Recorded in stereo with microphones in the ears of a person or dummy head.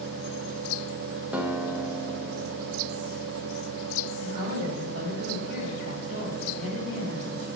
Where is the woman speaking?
40° right (ahead or behind), 3 m.